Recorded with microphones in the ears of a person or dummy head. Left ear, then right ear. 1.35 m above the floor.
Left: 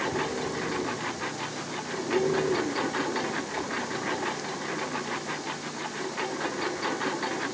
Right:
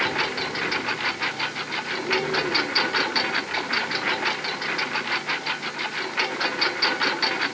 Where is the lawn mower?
50° right (ahead or behind).